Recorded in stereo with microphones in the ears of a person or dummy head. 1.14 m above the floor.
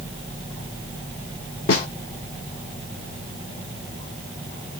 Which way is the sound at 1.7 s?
50° left (ahead or behind).